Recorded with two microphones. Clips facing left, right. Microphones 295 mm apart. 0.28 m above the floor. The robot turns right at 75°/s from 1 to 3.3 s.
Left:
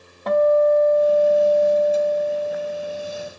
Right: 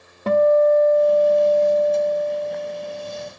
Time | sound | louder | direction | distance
0.3 | a guitar | right 1 dB | 40° right | 0.5 m